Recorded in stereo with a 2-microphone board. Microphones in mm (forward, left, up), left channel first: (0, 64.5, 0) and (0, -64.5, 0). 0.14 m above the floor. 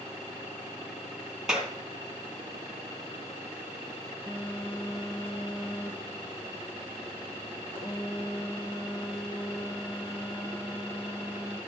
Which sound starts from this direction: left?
A phone buzzing, at 4.3 s.